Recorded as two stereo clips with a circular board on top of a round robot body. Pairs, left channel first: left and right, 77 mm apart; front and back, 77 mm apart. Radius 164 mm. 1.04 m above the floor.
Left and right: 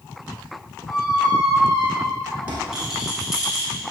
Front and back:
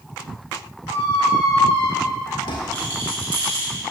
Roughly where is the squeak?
Ahead.